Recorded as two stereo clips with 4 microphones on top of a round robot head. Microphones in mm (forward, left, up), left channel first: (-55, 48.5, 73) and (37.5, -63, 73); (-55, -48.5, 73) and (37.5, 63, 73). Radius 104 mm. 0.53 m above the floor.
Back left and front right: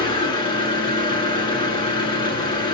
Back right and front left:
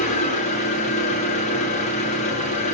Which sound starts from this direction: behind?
An engine running, at 0.0 s.